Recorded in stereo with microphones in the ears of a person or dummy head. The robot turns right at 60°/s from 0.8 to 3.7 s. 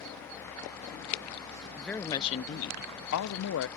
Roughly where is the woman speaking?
Ahead.